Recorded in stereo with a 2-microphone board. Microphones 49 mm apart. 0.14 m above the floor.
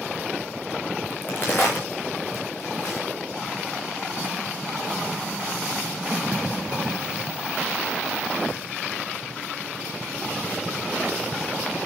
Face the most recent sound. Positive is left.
turn(degrees=40)  # may be behind; listen again after turning